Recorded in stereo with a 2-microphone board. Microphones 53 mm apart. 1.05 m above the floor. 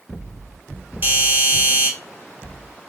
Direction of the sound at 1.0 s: 40° right (ahead or behind).